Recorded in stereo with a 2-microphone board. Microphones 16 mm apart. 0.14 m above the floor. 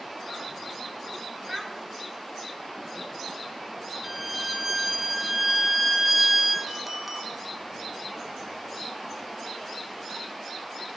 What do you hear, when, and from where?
1.5 s a child speaking: 20° right (ahead or behind), 1.5 m
4.0 s a violin: 10° right (ahead or behind), 0.7 m
6.7 s a clink: 15° right (ahead or behind), 1.5 m